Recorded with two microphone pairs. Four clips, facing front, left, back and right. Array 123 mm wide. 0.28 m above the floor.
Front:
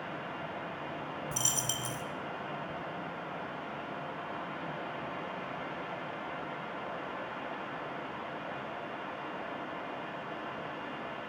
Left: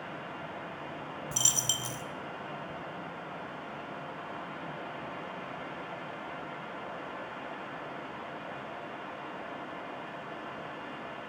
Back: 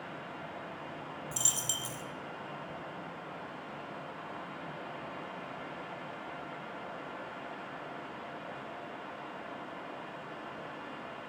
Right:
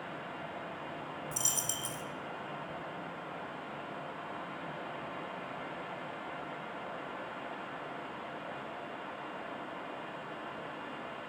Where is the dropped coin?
70° left, 0.7 m.